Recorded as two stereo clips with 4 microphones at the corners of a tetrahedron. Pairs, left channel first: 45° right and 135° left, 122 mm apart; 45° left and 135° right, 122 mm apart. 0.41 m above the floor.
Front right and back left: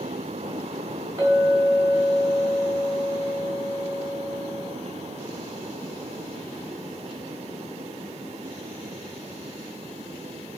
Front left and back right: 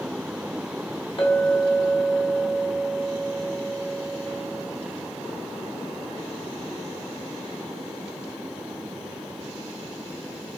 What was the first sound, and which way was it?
A clink, 80° left.